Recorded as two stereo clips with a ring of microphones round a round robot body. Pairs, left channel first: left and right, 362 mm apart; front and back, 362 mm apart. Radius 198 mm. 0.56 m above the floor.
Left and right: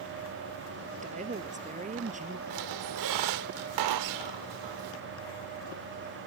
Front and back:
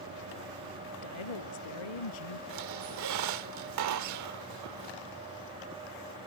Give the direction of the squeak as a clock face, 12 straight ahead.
4 o'clock.